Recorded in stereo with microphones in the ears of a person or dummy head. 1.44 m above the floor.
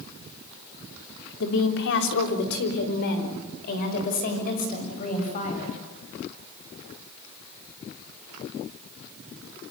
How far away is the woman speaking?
About 3.5 m.